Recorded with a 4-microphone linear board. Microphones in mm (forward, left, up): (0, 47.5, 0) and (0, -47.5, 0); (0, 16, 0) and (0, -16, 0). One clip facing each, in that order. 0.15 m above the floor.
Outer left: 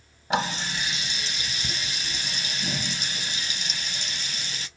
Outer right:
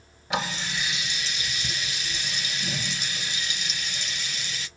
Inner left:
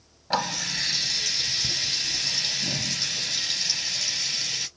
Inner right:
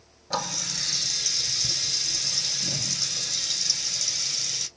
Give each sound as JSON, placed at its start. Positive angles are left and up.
{"t": 0.3, "sound": "a running tap", "side_deg": 35, "distance_m": 1.7}